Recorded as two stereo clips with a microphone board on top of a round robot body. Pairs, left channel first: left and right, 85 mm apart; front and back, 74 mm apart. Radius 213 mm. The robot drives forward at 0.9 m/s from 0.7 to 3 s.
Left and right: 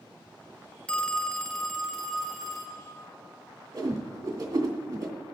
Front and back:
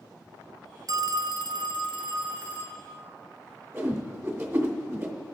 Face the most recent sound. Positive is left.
turn(degrees=-130)